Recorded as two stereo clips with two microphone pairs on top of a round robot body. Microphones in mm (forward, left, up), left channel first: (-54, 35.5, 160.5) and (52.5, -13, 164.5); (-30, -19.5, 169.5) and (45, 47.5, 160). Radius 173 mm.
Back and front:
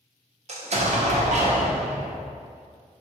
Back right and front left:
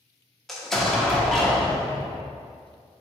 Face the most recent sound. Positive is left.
turn(degrees=-50)